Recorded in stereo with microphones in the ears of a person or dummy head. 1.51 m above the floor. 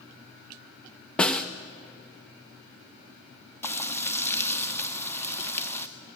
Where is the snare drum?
5° left (ahead or behind), 0.5 m.